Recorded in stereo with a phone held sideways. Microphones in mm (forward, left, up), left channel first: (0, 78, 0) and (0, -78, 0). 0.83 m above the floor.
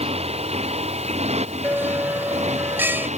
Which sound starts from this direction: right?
A motorcycle, at 0.0 s.